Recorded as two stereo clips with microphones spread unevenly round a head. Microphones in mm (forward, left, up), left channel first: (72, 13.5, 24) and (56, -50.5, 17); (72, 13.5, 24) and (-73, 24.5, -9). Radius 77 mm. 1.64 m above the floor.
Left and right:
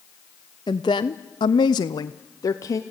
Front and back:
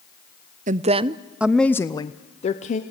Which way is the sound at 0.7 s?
135° left.